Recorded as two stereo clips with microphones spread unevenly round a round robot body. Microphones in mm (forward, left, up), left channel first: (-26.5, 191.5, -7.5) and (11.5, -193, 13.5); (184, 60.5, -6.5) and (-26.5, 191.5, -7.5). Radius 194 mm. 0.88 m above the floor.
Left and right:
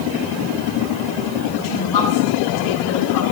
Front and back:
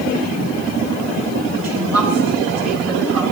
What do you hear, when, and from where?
1.6 s a woman speaking: 135° left, 8 m; by 3.2 s 145° left, 8 m